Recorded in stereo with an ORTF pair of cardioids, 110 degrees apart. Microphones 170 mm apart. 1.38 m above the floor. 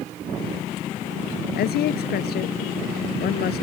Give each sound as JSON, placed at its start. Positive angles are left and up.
{"t": 1.6, "sound": "a woman speaking", "azimuth_deg": 65}